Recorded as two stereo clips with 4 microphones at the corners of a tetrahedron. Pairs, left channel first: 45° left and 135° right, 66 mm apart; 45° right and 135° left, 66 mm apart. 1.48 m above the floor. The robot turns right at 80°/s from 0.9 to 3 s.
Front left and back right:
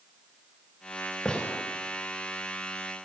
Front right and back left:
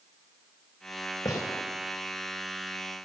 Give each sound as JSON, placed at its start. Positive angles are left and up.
{"t": 1.2, "sound": "a gunshot", "azimuth_deg": -35, "distance_m": 3.0}